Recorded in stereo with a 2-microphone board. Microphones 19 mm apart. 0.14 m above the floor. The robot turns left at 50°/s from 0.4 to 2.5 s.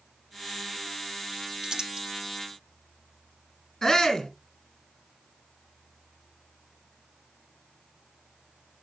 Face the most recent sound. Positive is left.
turn(degrees=20)  # may be behind; listen again after turning